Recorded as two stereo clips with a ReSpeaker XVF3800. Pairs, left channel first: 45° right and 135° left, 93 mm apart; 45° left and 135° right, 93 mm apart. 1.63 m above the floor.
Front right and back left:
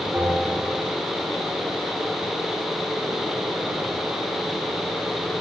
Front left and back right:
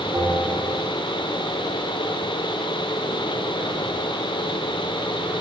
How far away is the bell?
About 1.3 m.